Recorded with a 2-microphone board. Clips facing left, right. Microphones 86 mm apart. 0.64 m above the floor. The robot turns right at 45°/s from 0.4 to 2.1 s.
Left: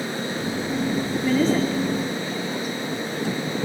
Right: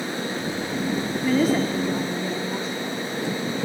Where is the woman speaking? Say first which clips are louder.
Even; straight behind, 1.8 m; by 2.7 s 140° right, 1.8 m.